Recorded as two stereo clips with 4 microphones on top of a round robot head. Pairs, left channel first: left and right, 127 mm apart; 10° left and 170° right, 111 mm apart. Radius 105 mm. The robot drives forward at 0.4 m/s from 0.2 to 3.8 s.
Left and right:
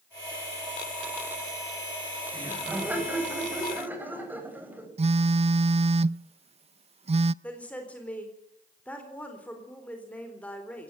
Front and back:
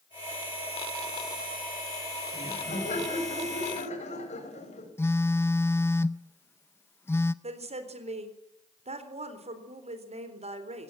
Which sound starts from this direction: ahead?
Laughter, at 2.3 s.